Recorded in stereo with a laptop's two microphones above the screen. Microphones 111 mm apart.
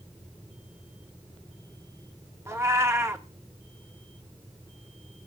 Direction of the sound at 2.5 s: 25° right (ahead or behind).